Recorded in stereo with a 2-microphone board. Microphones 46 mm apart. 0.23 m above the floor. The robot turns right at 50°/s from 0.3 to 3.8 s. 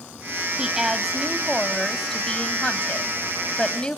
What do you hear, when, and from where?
0.6 s a woman speaking: 15° right (ahead or behind), 1.0 m; by 4.0 s 20° left (ahead or behind), 1.0 m